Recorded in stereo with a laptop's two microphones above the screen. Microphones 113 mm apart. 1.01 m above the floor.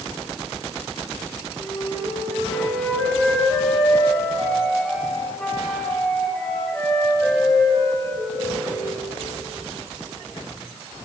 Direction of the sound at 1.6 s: 15° left (ahead or behind).